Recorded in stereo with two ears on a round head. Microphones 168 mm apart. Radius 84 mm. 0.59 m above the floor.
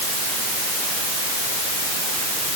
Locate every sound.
Only background noise.